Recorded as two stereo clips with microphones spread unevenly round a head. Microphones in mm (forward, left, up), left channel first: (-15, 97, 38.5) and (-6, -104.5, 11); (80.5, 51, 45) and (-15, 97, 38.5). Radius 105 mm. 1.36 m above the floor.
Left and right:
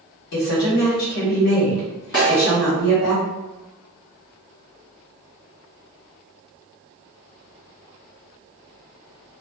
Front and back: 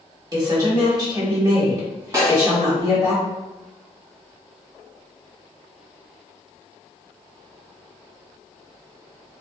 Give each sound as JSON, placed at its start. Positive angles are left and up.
{"t": 0.3, "sound": "a woman speaking", "azimuth_deg": 100, "distance_m": 1.5}
{"t": 2.1, "sound": "a snare drum", "azimuth_deg": 100, "distance_m": 1.9}